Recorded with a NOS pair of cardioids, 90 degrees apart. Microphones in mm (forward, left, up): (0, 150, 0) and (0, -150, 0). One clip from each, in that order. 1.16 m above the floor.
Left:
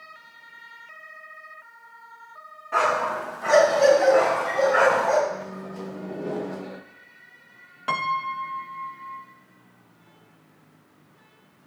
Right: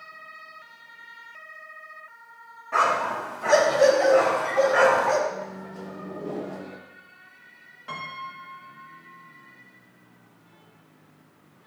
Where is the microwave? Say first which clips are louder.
Left 1 dB; 15° left, 0.6 m.